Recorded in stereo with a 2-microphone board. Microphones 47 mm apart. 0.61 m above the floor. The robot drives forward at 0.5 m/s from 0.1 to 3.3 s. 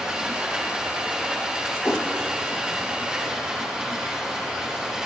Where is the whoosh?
60° left (ahead or behind), 0.9 m.